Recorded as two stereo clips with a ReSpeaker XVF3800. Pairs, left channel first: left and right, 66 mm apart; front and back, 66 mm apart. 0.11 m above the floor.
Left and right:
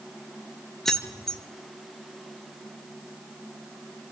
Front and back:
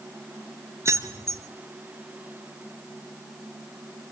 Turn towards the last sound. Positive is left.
turn(degrees=170)